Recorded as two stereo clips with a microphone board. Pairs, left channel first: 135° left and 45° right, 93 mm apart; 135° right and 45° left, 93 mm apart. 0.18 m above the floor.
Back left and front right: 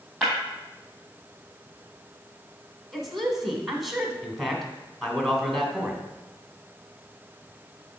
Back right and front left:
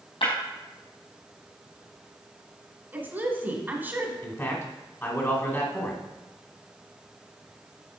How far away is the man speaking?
About 1.4 m.